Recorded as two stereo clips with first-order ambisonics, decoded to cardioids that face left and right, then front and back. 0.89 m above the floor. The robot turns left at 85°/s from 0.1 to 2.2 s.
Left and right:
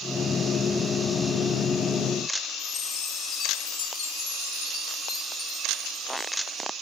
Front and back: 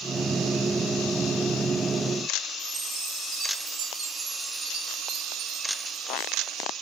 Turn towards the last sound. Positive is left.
turn(degrees=120)